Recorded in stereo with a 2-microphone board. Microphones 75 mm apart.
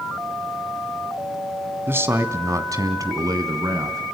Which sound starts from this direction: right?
A man speaking, at 1.9 s.